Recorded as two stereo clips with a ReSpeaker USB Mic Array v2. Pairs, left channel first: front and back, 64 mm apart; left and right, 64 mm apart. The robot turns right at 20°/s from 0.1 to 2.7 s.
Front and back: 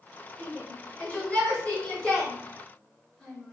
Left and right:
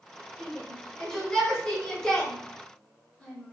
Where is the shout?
5° left, 1.4 m; by 3.5 s 50° left, 1.4 m.